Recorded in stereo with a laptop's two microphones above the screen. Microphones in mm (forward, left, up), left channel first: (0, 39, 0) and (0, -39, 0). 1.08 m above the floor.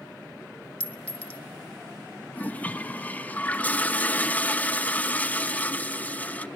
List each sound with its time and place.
0.8 s a clink: 20° left (ahead or behind), 1.3 m
2.3 s a toilet flushing: 20° left (ahead or behind), 0.6 m